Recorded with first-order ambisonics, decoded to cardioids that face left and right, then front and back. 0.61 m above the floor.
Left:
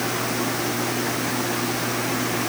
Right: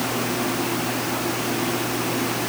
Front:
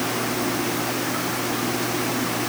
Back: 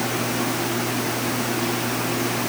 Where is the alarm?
No alarm in this recording.